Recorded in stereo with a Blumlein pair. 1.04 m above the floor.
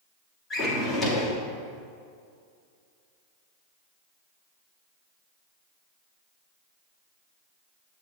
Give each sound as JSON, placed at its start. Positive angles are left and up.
{"t": 0.5, "sound": "a drawer", "azimuth_deg": 15, "distance_m": 1.2}